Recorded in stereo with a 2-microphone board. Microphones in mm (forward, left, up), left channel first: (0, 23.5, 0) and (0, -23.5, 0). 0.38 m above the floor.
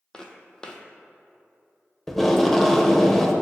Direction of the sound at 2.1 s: 5° left (ahead or behind).